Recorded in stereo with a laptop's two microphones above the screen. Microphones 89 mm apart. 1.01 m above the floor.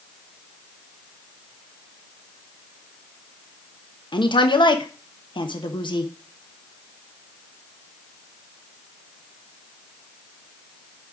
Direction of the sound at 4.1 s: 60° left (ahead or behind).